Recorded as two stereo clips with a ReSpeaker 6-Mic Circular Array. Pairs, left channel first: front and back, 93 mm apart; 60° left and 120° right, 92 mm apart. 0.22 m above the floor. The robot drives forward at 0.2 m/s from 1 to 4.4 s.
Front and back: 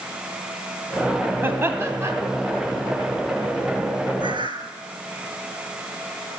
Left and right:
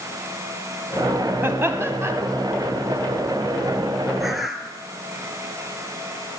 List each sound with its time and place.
1.4 s laughter: 145° right, 1.1 m; by 2.1 s 155° right, 1.2 m
4.2 s a bird: 155° left, 1.0 m